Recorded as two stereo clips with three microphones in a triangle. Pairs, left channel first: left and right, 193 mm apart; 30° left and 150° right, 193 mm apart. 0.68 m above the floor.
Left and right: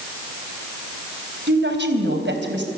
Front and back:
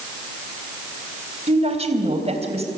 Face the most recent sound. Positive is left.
turn(degrees=-95)